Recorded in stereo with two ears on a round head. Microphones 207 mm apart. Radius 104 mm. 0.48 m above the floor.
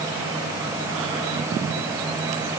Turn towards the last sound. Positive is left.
No sound to turn to.